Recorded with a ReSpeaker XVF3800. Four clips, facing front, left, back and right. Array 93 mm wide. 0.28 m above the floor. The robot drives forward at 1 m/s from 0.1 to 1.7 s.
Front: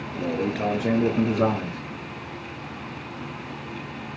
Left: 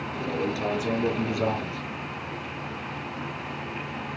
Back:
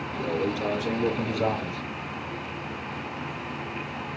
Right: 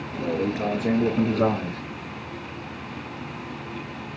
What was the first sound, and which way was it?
A man speaking, 30° right.